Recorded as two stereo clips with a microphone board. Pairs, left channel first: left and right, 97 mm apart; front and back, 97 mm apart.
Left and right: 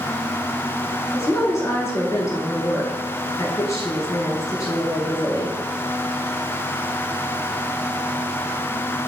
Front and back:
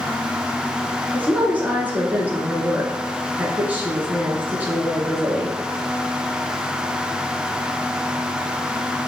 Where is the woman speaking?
120° left, 1.4 m.